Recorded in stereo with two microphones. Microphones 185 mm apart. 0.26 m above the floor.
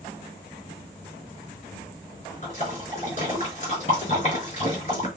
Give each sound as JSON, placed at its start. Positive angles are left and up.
{"t": 2.4, "sound": "a splash", "side_deg": 40, "distance_m": 4.0}